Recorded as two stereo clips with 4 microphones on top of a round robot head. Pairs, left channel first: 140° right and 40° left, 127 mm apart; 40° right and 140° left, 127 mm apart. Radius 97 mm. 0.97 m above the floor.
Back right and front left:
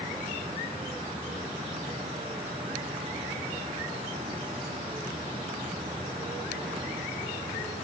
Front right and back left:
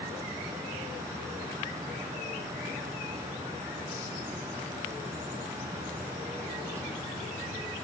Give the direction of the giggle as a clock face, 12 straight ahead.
I don't hear a giggle.